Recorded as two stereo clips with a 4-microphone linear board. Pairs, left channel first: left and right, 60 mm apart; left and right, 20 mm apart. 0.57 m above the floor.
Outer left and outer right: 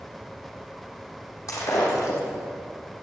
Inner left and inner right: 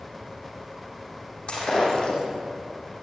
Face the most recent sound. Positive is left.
turn(degrees=60)  # may be behind; listen again after turning